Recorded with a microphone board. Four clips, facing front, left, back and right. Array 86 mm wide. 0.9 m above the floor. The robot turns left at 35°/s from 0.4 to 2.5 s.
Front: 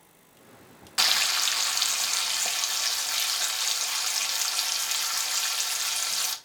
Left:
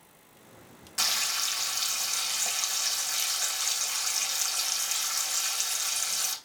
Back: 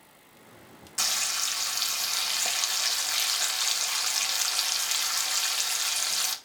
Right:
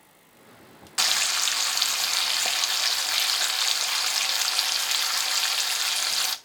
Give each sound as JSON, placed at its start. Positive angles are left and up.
{"t": 1.0, "sound": "frying", "azimuth_deg": -40, "distance_m": 0.6}